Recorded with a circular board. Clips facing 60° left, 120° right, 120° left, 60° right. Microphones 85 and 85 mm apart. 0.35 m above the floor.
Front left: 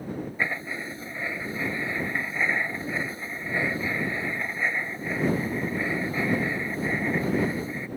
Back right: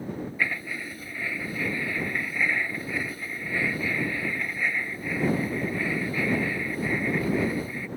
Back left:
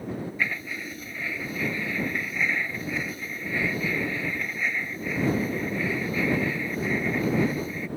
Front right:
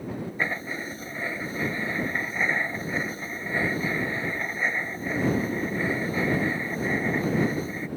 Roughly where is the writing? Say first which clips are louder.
Even, front right 1 dB; ahead.